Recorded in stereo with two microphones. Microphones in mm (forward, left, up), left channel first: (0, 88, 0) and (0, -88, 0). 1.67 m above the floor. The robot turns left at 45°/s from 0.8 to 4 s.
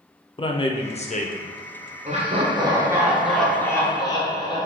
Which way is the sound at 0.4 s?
30° left (ahead or behind).